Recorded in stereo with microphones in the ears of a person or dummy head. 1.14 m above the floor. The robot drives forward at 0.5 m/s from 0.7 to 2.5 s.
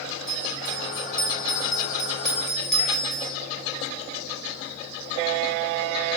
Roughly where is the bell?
Centre.